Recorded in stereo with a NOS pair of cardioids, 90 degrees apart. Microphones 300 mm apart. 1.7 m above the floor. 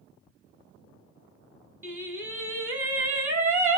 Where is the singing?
10° right, 0.7 m.